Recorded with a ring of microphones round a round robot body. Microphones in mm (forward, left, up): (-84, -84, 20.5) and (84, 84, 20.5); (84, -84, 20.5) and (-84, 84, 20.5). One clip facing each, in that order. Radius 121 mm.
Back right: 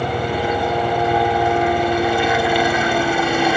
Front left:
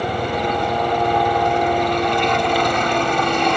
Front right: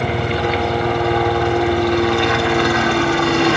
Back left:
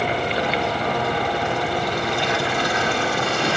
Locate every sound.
0.0 s a helicopter: 55° right